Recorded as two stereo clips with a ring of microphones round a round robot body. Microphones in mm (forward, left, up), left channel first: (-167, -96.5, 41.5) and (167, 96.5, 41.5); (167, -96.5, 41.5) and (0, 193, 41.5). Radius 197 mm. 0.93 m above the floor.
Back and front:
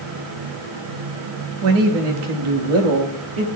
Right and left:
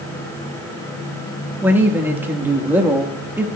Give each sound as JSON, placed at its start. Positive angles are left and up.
{"t": 1.6, "sound": "a man speaking", "azimuth_deg": 35, "distance_m": 1.6}